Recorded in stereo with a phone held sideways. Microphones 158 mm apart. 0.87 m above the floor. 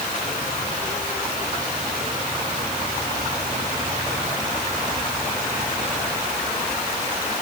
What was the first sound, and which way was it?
Only background noise.